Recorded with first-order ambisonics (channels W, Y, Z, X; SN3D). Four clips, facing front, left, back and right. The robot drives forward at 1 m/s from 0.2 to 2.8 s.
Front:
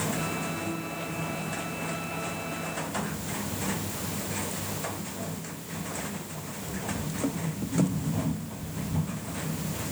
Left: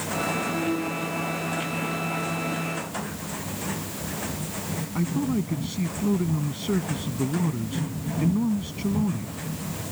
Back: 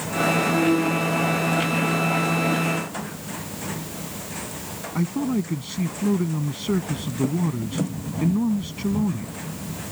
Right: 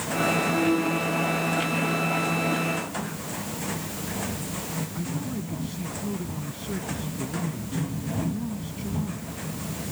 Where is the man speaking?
155° left.